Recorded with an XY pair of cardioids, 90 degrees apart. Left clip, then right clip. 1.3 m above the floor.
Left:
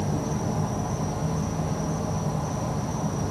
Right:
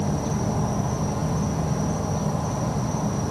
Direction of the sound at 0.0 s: 30° right.